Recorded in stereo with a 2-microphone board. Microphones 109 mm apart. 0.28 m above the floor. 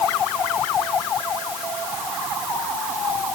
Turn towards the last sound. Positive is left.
No sound to turn to.